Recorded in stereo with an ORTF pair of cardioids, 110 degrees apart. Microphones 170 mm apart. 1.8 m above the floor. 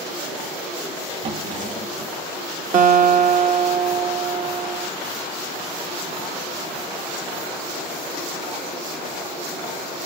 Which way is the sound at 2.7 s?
50° right.